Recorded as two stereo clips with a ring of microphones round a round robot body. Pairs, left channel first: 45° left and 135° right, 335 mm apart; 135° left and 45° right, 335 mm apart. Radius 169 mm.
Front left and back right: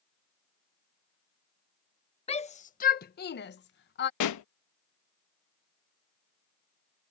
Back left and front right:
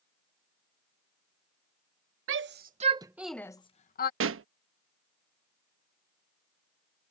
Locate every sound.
2.3 s a shout: 20° right; by 4.1 s 90° left
4.2 s a pop: 10° left